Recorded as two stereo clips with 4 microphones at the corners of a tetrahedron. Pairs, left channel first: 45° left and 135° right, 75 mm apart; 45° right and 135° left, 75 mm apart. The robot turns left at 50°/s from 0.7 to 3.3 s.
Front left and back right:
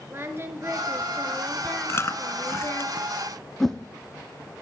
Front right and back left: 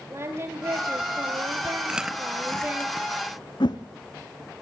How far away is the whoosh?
About 1.7 m.